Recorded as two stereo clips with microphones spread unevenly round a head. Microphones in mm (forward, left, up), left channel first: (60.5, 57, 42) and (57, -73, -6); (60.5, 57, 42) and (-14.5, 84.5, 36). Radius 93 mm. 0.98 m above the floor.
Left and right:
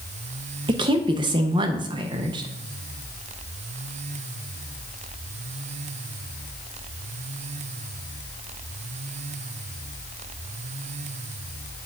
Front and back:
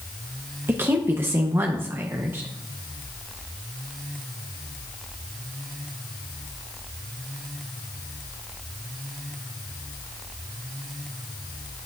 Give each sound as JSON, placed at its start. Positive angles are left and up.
{"t": 0.7, "sound": "a woman speaking", "azimuth_deg": -135, "distance_m": 0.5}